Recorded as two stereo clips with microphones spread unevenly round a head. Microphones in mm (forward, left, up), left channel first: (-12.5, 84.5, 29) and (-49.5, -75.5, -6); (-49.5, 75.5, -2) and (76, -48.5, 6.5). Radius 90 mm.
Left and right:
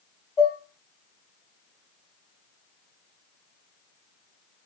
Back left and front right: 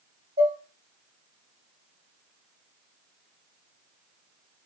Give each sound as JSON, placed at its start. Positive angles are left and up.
{"t": 0.4, "sound": "dishes clattering", "azimuth_deg": 0, "distance_m": 1.5}